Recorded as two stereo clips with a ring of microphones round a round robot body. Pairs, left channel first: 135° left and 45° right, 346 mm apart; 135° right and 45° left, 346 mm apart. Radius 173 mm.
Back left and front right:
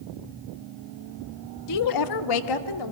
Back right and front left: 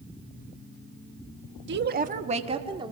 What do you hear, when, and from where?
1.7 s a woman speaking: 100° left, 1.3 m; by 2.9 s 125° left, 2.5 m